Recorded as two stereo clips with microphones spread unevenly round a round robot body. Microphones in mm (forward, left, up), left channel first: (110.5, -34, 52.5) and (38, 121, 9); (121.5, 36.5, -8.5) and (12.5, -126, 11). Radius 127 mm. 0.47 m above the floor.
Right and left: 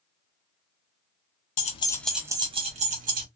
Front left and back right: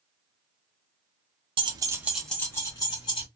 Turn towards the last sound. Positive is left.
turn(degrees=120)